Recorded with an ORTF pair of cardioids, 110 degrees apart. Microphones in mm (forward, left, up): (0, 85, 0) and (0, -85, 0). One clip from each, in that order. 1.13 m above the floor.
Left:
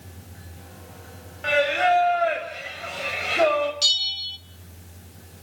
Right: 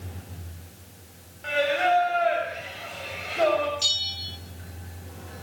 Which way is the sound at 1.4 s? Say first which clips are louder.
Left 3 dB; 45° left.